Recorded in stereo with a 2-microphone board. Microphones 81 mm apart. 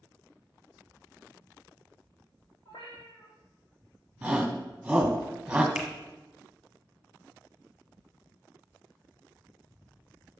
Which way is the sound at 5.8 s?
10° right (ahead or behind).